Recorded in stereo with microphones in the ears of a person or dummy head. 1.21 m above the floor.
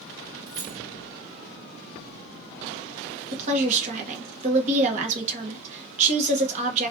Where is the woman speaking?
40° right (ahead or behind), 0.8 m.